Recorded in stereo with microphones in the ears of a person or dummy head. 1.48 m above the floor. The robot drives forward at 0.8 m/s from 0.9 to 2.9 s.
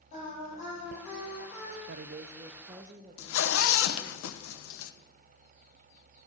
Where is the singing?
35° left (ahead or behind), 8.5 m; by 1.8 s 30° left (ahead or behind), 9.5 m.